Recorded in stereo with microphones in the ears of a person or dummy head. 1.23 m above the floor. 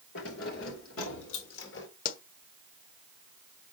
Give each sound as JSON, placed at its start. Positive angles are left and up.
{"t": 0.1, "sound": "keys jangling", "side_deg": 70, "distance_m": 2.5}
{"t": 2.0, "sound": "a pop", "side_deg": 50, "distance_m": 1.2}